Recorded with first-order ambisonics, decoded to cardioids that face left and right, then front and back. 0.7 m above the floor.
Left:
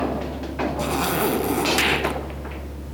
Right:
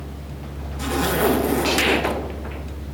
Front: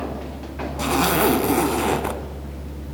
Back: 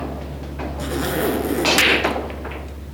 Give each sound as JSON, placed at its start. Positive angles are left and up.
{"t": 0.8, "sound": "a zipper", "azimuth_deg": 15, "distance_m": 3.0}